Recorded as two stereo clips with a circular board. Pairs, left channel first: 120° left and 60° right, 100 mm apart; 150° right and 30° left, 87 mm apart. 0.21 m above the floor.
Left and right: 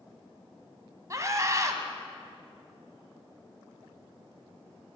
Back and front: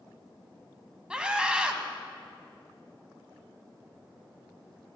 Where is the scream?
40° right, 1.5 m.